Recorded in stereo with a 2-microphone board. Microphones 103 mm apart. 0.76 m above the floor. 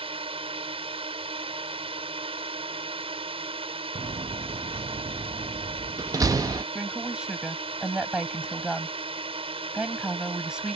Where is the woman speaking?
10° right (ahead or behind).